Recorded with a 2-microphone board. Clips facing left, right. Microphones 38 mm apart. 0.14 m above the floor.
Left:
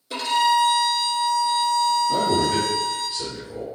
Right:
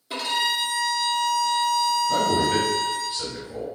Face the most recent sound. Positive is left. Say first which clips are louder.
# left 1 dB
turn(degrees=-20)  # may be behind; listen again after turning